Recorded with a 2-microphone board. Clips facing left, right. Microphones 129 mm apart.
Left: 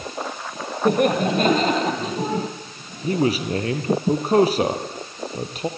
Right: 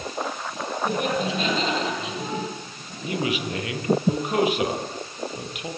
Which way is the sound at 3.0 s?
35° left (ahead or behind).